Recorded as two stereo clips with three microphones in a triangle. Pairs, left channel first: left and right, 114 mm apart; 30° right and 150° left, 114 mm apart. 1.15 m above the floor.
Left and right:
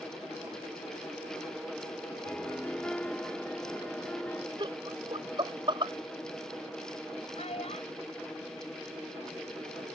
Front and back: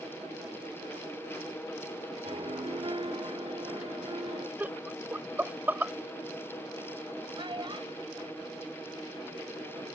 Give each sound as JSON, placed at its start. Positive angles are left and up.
{"t": 2.2, "sound": "a piano", "azimuth_deg": 165}
{"t": 4.6, "sound": "laughter", "azimuth_deg": -135}
{"t": 7.3, "sound": "a child speaking", "azimuth_deg": 105}